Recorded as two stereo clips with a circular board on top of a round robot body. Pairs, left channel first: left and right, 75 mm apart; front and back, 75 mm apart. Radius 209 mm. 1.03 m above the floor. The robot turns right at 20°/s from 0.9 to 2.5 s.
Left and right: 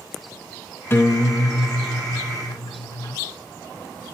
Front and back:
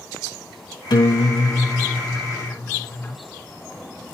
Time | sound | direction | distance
0.9 | a guitar | 30° left | 1.2 m